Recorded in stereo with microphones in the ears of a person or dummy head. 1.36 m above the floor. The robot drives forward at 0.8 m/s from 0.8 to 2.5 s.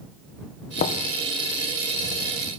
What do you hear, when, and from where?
0.8 s knocking: 50° left (ahead or behind), 0.6 m; by 1.1 s 75° left (ahead or behind), 0.5 m